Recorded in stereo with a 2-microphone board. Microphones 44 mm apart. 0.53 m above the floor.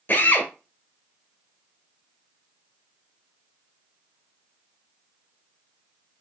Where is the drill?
50° left (ahead or behind), 2.5 m.